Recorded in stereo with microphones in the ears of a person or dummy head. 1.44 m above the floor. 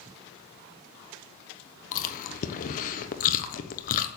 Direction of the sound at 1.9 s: 45° left (ahead or behind).